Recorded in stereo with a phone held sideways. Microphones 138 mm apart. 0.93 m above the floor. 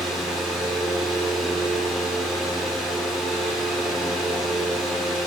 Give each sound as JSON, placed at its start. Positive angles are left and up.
{"t": 0.0, "sound": "a fan", "side_deg": -5, "distance_m": 0.7}